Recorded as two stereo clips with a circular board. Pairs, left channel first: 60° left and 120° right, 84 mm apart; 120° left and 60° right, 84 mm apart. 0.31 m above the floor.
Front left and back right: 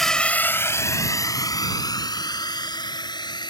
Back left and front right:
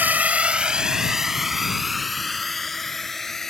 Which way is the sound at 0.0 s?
25° right.